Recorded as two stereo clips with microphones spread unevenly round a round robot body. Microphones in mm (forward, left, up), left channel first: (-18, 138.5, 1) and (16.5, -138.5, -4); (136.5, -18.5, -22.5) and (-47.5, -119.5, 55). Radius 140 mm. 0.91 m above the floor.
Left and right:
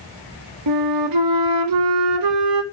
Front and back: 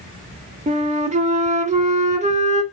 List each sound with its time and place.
0.7 s a flute: 90° right, 1.2 m